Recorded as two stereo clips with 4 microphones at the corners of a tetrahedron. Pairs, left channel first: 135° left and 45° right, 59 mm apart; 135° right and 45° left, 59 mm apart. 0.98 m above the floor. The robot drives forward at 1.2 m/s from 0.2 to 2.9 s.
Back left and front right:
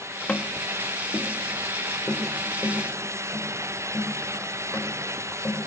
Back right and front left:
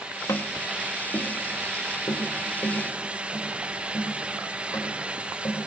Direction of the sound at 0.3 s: 160° right.